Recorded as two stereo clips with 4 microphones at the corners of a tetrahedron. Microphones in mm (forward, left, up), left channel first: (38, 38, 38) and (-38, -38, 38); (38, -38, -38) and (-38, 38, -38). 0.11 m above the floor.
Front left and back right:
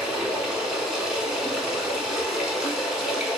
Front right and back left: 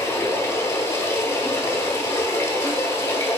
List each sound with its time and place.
0.0 s running water: 55° right, 1.0 m